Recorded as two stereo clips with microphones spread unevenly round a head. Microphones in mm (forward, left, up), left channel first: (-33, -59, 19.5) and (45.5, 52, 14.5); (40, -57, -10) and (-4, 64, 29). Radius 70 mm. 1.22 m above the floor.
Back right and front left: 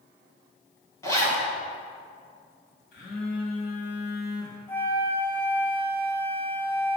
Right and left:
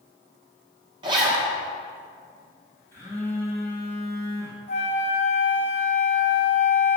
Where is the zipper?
165° left, 1.3 m.